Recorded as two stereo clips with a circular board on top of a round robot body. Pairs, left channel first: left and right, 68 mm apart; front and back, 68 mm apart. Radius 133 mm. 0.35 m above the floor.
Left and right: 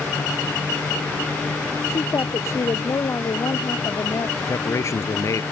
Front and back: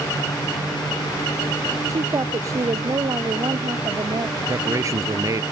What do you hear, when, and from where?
1.9 s a woman speaking: 140° left
4.4 s a man speaking: 135° left